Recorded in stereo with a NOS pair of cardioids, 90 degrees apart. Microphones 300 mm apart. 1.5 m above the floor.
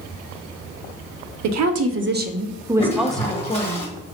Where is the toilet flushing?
20° left, 1.7 m.